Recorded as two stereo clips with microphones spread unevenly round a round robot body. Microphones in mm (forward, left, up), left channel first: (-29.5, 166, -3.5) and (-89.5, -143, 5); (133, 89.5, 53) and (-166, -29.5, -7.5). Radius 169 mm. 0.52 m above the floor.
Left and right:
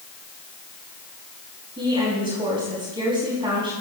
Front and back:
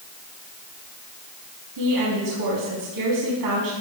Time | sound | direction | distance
1.8 | a woman speaking | 175° right | 4.5 m